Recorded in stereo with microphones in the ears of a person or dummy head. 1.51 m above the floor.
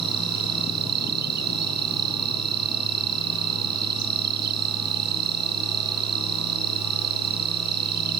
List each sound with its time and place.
0.0 s an insect: 60° right (ahead or behind)